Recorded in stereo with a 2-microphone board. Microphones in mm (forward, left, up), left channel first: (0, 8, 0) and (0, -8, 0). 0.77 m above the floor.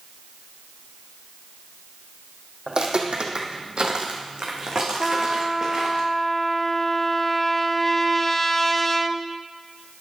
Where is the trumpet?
20° left (ahead or behind), 0.6 m.